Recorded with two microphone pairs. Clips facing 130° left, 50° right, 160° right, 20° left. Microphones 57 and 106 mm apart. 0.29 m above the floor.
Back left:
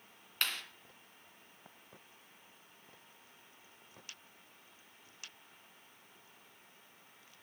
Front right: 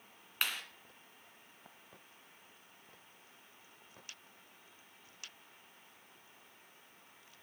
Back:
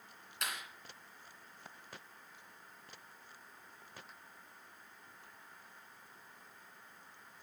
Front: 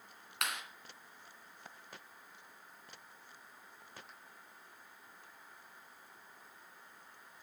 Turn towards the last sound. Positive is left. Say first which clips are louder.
# even, front 3 dB
turn(degrees=25)